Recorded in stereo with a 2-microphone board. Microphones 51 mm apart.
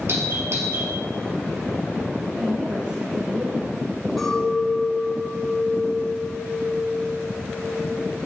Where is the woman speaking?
45° right (ahead or behind), 4.5 m.